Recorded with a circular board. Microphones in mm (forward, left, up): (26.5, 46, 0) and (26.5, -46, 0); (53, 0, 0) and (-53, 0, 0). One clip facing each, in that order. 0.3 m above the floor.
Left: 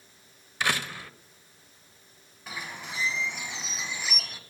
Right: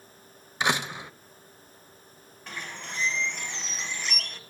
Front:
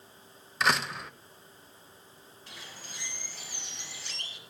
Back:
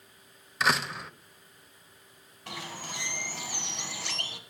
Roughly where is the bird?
Behind.